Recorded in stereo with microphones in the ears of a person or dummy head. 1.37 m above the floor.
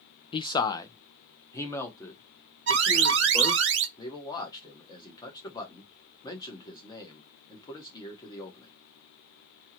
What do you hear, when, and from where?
0.3 s a man speaking: 20° left (ahead or behind), 0.5 m; by 3.6 s 5° left (ahead or behind), 2.5 m
2.7 s an alarm: 60° right (ahead or behind), 0.7 m
4.0 s a man speaking: 15° left (ahead or behind), 1.5 m